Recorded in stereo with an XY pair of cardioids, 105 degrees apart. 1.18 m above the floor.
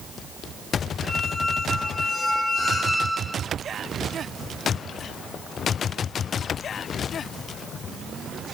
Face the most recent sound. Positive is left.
turn(degrees=20)